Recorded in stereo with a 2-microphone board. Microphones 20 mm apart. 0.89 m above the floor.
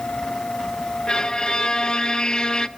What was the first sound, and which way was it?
A violin, 40° left (ahead or behind).